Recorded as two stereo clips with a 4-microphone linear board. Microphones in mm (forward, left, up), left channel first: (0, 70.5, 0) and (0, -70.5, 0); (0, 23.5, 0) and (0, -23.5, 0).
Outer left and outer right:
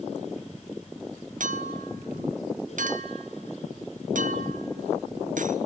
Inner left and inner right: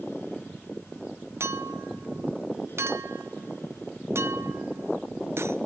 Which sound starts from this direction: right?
A clink, at 1.4 s.